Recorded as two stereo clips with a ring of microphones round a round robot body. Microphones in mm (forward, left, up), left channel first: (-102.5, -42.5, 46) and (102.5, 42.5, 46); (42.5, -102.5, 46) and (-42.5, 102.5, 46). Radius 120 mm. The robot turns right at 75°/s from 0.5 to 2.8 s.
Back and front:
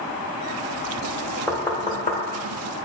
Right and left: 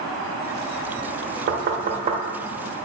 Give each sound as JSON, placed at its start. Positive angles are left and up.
{"t": 1.5, "sound": "knocking", "azimuth_deg": 115, "distance_m": 0.7}